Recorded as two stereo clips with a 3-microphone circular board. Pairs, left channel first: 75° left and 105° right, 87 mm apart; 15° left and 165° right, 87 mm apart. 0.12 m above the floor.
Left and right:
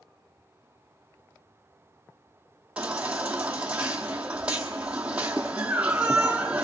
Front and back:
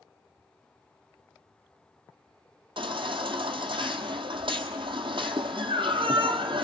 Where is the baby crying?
Straight behind, 1.6 m.